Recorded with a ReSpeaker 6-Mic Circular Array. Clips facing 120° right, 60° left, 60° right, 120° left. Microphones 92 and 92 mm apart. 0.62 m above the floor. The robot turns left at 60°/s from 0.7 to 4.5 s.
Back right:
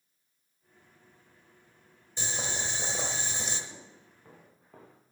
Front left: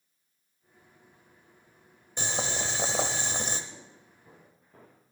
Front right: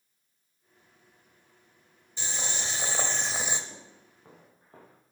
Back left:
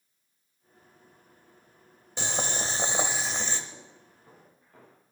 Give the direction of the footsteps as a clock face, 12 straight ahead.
2 o'clock.